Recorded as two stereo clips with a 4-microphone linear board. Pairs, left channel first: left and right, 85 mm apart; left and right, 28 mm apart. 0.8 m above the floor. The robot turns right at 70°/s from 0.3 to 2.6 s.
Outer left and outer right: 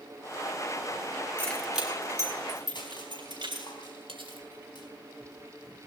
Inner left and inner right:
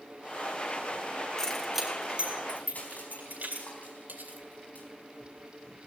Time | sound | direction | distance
1.4 | keys jangling | 20° left (ahead or behind) | 5 m
2.8 | crushing | 60° left (ahead or behind) | 4.5 m
4.1 | cutlery clinking | 85° right | 2.5 m